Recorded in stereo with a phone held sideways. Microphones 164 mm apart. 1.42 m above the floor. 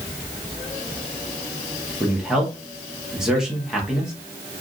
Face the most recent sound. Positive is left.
turn(degrees=-5)  # may be behind; listen again after turning